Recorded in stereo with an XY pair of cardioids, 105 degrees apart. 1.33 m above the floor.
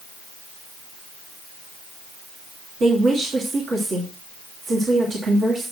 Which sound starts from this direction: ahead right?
A woman speaking, at 2.8 s.